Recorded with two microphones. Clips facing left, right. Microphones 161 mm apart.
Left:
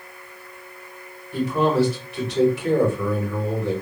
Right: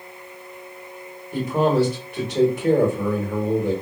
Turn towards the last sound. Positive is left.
turn(degrees=-50)  # may be behind; listen again after turning